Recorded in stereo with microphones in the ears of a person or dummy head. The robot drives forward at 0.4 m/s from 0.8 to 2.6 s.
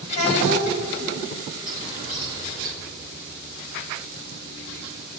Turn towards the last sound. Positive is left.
turn(degrees=40)  # may be behind; listen again after turning